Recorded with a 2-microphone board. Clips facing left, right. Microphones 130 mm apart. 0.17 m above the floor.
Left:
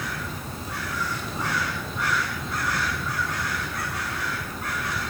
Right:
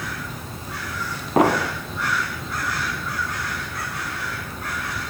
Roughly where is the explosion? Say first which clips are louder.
Right 13 dB; right.